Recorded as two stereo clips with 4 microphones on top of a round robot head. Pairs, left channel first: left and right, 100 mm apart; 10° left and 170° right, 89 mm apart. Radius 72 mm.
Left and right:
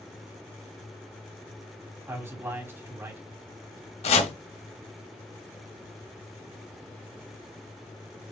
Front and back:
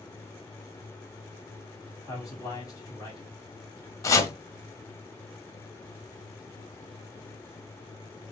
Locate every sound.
2.1 s a man speaking: 30° right, 1.7 m
4.0 s chopping: 65° left, 0.8 m